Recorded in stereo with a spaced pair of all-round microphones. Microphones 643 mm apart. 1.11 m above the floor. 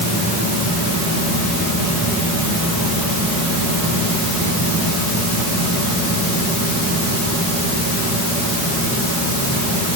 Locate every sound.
Only background noise.